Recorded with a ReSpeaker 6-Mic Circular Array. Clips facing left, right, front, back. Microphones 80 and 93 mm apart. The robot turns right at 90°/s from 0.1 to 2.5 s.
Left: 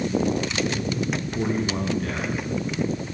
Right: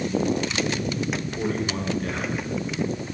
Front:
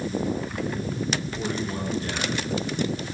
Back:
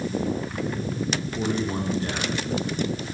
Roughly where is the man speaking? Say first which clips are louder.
Left 3 dB, back 3 dB; behind left.